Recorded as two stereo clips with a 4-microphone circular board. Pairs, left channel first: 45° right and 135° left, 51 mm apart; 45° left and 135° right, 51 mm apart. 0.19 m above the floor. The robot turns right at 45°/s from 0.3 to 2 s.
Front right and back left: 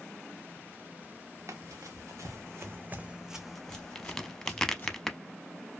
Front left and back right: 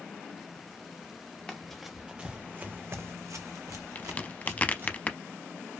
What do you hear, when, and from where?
1.5 s running footsteps: 115° left, 1.1 m; by 5.0 s 100° right, 1.3 m
4.0 s a crack: 30° left, 0.6 m